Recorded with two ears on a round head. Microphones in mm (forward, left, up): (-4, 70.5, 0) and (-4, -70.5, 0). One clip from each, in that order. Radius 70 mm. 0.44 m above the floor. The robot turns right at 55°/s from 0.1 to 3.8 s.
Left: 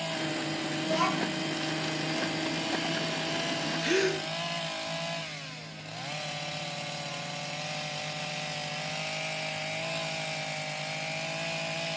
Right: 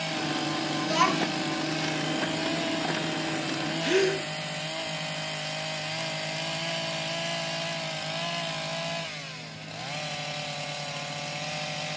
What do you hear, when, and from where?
0.8 s a child speaking: 50° right, 3 m; by 1.4 s 15° right, 3 m
3.8 s a gasp: 15° left (ahead or behind), 2.5 m